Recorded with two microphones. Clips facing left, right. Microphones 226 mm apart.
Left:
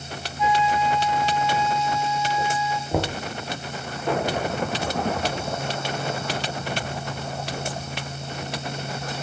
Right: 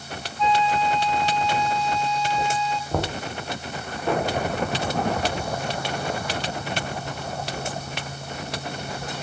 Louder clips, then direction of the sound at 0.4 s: Even; 10° left (ahead or behind).